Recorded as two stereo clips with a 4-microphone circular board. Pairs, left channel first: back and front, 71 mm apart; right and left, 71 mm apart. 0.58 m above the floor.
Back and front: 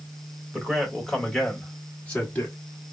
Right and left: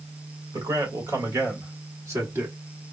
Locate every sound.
0.5 s a man speaking: 90° left, 1.9 m; by 2.5 s 125° left, 1.6 m